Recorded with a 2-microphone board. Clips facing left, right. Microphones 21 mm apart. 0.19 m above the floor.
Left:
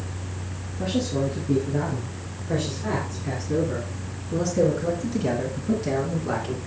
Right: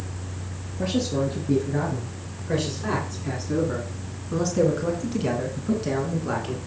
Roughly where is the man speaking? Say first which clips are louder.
Right 1 dB; right.